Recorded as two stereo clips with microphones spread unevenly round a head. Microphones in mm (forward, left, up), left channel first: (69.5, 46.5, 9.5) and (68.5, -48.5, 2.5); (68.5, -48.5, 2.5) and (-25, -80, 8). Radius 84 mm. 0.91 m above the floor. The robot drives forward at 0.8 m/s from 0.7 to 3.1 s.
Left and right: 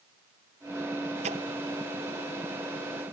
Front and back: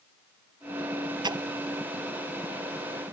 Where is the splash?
115° right; by 1.4 s 120° right.